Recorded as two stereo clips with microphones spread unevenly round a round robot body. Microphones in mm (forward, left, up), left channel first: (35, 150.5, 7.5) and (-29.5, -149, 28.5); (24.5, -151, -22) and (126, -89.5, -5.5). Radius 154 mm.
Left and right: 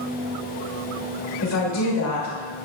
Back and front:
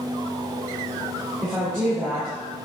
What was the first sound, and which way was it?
A woman speaking, 115° left.